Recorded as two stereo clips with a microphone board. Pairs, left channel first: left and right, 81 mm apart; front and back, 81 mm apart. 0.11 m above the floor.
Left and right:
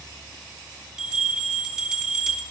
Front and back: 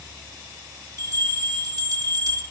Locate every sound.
1.0 s a bell: 165° right, 3 m